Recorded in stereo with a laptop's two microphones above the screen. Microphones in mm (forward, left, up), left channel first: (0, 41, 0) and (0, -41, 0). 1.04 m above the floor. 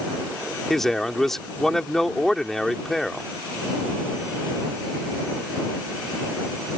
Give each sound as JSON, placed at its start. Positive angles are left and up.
{"t": 0.7, "sound": "a man speaking", "side_deg": 5}